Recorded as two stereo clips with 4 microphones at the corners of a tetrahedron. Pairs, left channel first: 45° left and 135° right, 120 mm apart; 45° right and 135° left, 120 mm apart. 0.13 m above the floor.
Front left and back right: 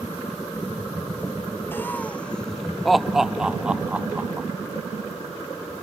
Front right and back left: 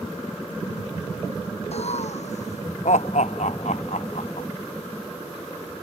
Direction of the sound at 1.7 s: 25° right.